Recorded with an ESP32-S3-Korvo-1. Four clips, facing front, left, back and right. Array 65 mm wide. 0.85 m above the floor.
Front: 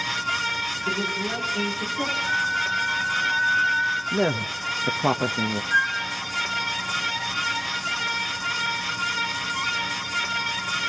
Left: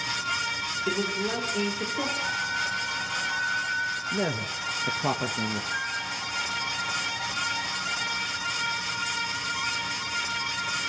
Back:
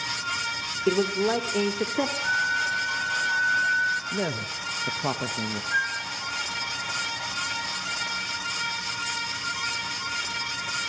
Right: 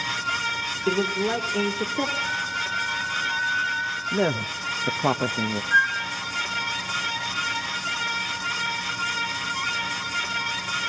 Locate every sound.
0.9 s a man speaking: 155° right, 2.5 m
2.2 s a flute: 160° left, 2.5 m
4.1 s a man speaking: 50° right, 1.0 m
5.7 s a flute: 60° right, 1.4 m